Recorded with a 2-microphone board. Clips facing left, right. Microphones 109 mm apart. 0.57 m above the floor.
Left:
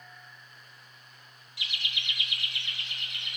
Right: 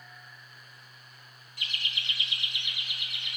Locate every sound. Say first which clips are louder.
1.6 s laughter: even; 50° right (ahead or behind), 1.2 m; by 3.4 s centre (ahead or behind), 1.7 m